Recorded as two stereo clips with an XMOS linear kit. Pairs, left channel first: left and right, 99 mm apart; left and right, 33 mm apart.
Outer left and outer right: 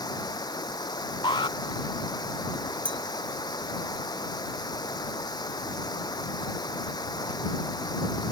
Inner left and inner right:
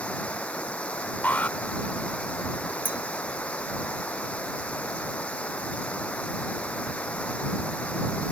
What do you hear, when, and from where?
0.0 s running water: 45° left (ahead or behind)
1.2 s an alarm: 55° left (ahead or behind)
2.9 s a clink: 60° right (ahead or behind)